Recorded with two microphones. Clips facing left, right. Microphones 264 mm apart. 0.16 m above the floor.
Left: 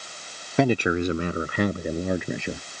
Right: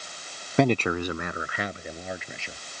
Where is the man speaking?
Centre (ahead or behind); by 2.7 s 60° left (ahead or behind).